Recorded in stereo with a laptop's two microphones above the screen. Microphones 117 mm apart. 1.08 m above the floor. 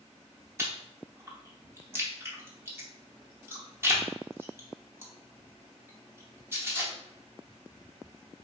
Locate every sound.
0.6 s chewing: 20° right (ahead or behind), 0.8 m